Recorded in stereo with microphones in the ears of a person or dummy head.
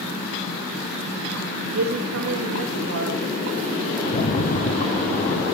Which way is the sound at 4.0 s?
45° left (ahead or behind).